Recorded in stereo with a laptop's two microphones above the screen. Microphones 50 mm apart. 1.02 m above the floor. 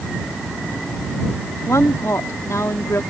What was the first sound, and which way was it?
A woman speaking, 75° left (ahead or behind).